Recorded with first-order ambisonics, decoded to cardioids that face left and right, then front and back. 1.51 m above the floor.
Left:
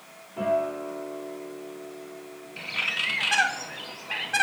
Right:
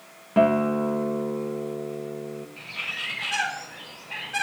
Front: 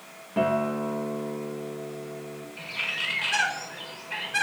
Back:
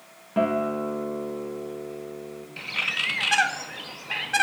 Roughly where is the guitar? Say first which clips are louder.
Right 5 dB, back 1 dB; right.